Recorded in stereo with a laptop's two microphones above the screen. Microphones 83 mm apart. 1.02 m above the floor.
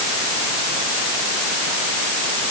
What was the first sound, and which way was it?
Only background noise.